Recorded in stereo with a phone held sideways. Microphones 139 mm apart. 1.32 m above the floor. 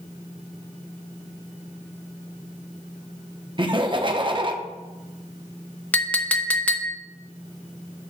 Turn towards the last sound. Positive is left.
turn(degrees=10)  # may be behind; listen again after turning